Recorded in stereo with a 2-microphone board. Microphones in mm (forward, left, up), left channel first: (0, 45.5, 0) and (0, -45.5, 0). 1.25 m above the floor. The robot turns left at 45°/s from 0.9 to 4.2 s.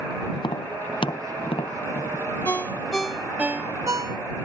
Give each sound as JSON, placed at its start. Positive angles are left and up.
{"t": 0.3, "sound": "tapping", "side_deg": 55}
{"t": 2.5, "sound": "a ringtone", "azimuth_deg": 30}